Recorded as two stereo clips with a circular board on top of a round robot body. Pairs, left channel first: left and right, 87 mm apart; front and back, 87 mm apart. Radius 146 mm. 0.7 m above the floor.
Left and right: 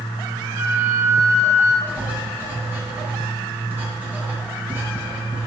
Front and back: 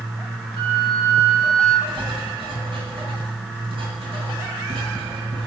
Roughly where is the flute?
Behind right.